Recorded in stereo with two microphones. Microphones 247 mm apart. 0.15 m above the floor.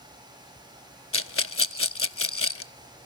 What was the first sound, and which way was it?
A rattle, 60° left (ahead or behind).